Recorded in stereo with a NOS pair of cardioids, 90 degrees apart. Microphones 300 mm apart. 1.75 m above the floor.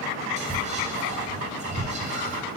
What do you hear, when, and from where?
0.4 s whispering: 25° right, 1.1 m